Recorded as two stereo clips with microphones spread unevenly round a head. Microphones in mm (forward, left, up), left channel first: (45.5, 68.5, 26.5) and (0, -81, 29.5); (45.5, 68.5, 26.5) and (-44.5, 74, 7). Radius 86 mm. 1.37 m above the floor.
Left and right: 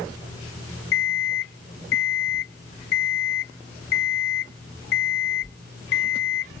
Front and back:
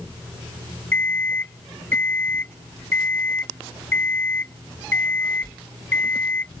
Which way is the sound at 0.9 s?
65° left.